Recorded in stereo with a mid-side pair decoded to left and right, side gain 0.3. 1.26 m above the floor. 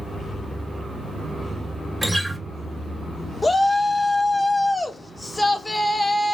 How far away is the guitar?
About 1.5 m.